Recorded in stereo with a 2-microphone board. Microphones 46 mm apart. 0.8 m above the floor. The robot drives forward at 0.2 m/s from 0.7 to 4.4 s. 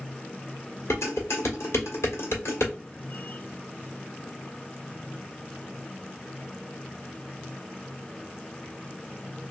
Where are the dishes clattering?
85° left, 1.4 m; by 2.7 s 75° left (ahead or behind), 1.5 m.